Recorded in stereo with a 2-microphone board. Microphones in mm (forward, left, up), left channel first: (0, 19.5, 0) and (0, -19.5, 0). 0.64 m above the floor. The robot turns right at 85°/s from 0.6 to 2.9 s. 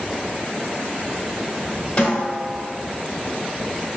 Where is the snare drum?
135° left, 1.8 m; by 2.6 s 175° right, 1.8 m.